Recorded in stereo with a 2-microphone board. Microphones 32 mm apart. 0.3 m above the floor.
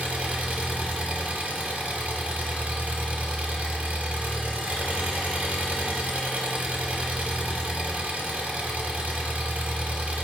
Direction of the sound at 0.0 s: 50° right (ahead or behind).